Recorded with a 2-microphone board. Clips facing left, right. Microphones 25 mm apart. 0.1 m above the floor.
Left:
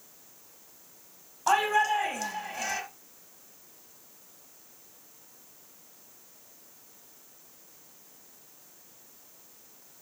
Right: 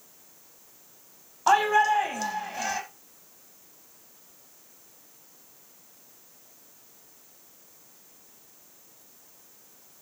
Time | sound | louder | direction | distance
1.5 | a shout | right 4 dB | 20° right (ahead or behind) | 4.5 m